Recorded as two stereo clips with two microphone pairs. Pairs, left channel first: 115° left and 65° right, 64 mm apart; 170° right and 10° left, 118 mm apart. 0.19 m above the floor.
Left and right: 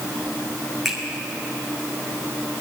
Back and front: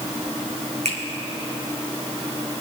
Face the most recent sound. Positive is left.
turn(degrees=20)